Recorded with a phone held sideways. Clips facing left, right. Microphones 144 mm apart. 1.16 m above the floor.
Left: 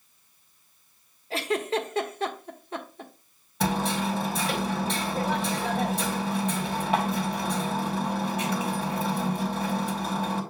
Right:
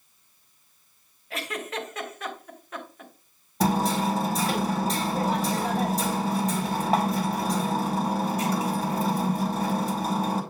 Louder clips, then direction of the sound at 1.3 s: Left 6 dB; 30° left (ahead or behind).